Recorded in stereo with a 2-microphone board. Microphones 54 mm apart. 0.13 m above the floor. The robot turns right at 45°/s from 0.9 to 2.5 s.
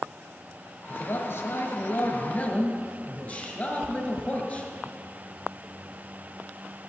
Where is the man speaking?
70° left, 1.6 m; by 4.7 s 140° left, 1.6 m.